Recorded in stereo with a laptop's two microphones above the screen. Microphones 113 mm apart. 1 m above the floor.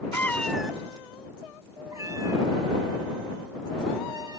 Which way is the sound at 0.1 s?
25° left (ahead or behind).